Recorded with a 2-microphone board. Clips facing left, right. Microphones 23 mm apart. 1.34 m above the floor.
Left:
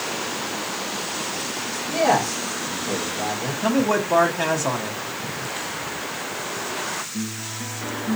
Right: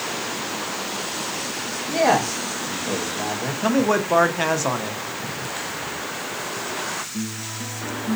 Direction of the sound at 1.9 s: 85° right.